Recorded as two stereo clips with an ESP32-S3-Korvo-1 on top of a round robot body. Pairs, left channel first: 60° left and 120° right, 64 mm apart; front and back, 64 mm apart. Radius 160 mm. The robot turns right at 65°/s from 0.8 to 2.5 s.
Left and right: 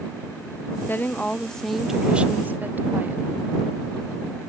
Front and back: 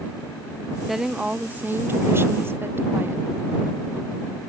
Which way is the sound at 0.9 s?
95° left.